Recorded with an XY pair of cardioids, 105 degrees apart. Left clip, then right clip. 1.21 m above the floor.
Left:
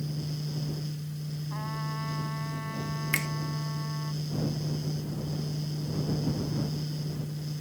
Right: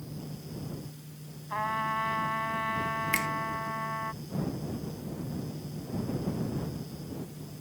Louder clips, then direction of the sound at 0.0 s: Left 6 dB; 65° left.